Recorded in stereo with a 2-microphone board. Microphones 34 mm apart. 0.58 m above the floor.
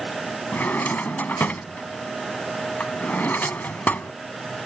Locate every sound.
0.5 s a drawer: 70° left (ahead or behind)